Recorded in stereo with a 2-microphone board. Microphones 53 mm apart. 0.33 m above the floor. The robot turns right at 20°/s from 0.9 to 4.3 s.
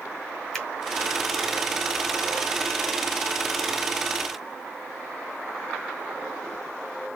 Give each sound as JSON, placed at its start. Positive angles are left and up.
{"t": 0.5, "sound": "a finger snap", "side_deg": 10, "distance_m": 1.4}